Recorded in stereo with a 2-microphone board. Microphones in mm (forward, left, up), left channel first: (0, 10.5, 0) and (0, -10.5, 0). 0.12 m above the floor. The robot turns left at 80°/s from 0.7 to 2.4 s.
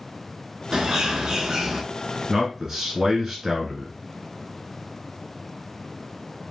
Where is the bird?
65° right, 0.6 m; by 1.8 s 150° right, 0.6 m.